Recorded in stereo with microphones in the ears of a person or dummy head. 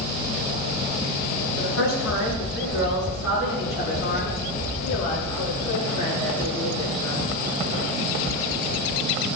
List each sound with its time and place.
1.6 s a woman speaking: 75° left (ahead or behind), 3 m; by 7.2 s 25° left (ahead or behind), 5 m